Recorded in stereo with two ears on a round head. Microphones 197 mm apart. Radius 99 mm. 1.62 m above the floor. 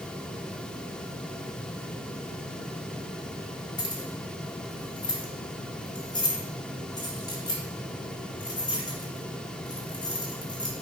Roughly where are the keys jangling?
Centre.